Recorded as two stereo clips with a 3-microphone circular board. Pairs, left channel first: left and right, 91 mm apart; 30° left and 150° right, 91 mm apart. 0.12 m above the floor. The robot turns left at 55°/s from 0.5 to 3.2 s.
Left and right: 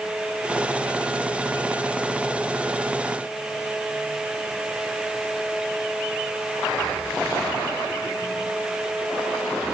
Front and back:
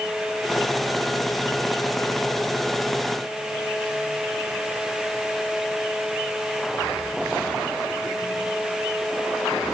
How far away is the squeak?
No squeak in this recording.